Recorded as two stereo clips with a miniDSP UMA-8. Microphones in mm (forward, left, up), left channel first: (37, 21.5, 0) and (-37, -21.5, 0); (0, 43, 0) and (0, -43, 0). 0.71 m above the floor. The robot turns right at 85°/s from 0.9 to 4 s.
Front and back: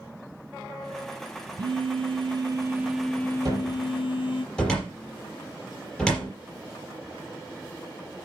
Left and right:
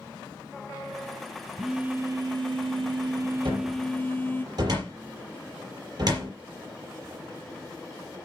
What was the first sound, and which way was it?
A phone buzzing, 175° left.